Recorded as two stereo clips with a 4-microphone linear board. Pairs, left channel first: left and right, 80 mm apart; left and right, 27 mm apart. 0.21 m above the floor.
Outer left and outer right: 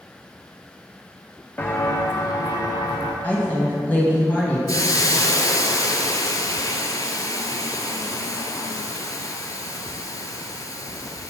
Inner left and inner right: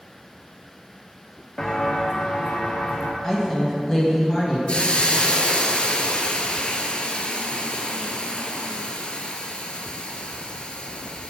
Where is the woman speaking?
20° left (ahead or behind), 1.5 m.